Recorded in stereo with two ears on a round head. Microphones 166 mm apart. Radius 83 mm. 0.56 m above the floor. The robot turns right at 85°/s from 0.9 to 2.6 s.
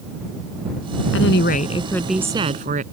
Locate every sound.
1.1 s a woman speaking: 100° left; by 2.8 s 135° right